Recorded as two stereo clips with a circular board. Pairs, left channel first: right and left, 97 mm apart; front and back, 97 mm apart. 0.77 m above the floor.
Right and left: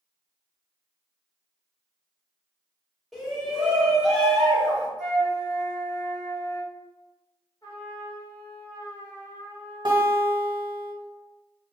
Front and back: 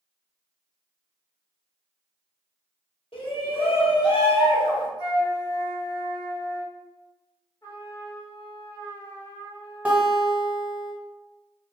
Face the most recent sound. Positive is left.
turn(degrees=105)